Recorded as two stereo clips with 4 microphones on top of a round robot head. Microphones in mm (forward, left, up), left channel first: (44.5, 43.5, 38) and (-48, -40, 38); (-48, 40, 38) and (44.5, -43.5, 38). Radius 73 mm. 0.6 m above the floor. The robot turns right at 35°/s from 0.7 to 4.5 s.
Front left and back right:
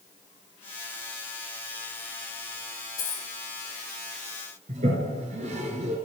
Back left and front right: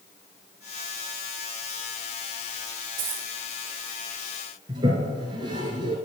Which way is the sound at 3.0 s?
20° right.